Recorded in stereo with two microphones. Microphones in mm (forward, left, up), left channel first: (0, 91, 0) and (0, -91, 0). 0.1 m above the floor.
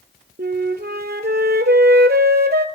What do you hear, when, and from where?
0.4 s a flute: 60° right (ahead or behind), 0.6 m